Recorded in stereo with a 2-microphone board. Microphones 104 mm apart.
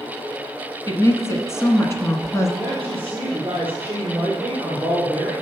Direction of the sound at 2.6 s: 15° right (ahead or behind).